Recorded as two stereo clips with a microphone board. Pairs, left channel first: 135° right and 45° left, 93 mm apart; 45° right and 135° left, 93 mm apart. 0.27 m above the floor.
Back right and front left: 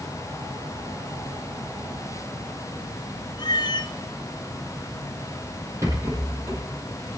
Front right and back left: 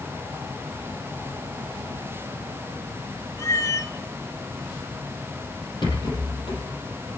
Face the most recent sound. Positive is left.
turn(degrees=-15)